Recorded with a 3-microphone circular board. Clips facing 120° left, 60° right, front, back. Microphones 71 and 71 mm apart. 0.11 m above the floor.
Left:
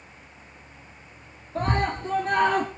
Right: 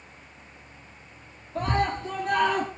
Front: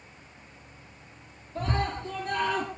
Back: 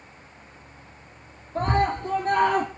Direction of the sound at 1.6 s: 155° left.